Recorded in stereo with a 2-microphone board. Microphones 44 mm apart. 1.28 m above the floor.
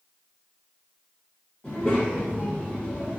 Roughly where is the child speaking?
Left.